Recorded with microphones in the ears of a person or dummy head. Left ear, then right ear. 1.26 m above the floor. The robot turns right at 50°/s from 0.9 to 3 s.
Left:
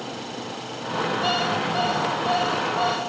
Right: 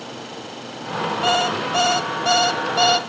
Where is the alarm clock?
150° right, 1.1 m; by 3.0 s 60° right, 1.1 m.